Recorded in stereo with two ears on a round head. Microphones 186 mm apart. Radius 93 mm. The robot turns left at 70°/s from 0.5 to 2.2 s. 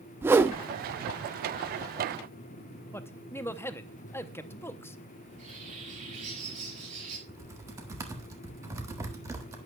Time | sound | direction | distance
0.2 | a whoosh | 10° right (ahead or behind) | 0.6 m
2.9 | a man speaking | 10° left (ahead or behind) | 0.6 m
5.2 | a bird | 35° right (ahead or behind) | 4.5 m
7.3 | typing on a keyboard | 15° right (ahead or behind) | 1.4 m